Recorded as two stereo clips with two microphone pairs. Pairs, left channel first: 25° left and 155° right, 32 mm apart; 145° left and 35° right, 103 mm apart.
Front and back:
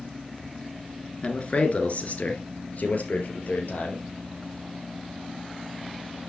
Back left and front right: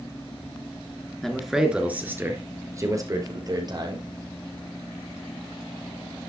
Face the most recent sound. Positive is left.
turn(degrees=5)